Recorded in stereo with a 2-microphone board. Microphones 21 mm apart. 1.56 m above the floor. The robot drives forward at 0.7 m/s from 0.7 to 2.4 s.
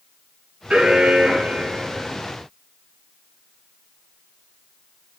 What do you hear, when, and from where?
0.7 s an alarm: 80° right, 3 m